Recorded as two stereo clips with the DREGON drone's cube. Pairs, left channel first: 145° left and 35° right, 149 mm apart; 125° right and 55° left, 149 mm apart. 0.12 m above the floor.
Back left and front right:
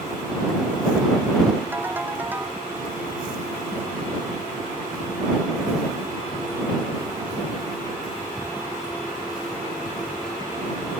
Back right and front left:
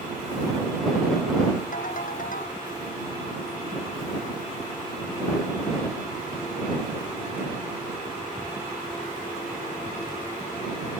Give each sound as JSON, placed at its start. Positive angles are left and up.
{"t": 1.7, "sound": "a ringtone", "azimuth_deg": -110}